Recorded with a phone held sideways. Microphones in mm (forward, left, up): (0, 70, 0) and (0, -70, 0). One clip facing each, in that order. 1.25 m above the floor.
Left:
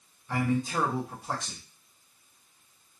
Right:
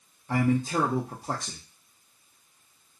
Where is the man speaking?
40° right (ahead or behind), 0.5 m.